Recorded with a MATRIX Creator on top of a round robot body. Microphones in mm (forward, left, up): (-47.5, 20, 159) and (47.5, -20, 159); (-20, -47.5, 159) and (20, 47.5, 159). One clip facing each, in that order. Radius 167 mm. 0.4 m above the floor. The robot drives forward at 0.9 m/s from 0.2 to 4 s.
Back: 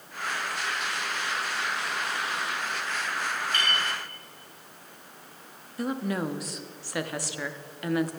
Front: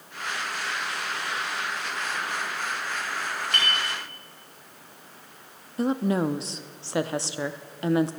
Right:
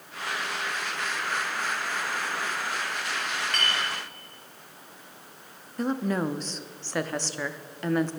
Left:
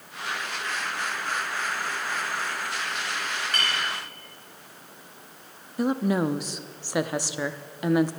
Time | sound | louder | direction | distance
3.5 | a clink | front 1 dB, left 1 dB | 20° right | 4 m
5.8 | a woman speaking | front 5 dB, left 3 dB | straight ahead | 0.8 m